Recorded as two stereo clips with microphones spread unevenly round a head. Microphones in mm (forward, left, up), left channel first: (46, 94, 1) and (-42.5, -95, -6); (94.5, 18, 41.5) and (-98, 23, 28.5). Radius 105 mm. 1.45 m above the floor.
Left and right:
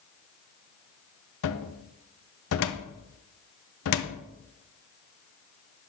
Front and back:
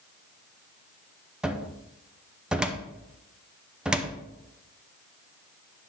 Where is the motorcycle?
No motorcycle in this recording.